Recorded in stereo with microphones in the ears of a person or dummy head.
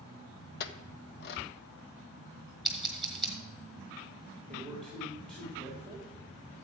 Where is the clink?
55° left (ahead or behind), 0.9 m.